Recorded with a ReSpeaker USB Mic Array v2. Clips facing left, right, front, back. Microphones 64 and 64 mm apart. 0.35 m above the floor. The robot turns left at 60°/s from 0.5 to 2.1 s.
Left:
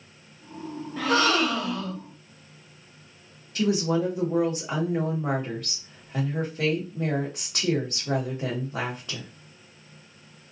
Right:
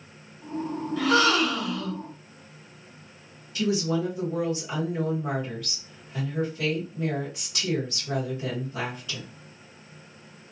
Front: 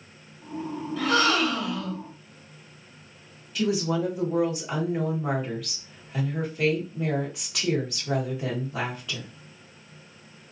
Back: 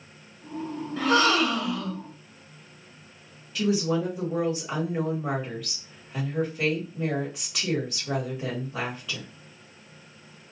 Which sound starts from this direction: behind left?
A gasp, at 1.0 s.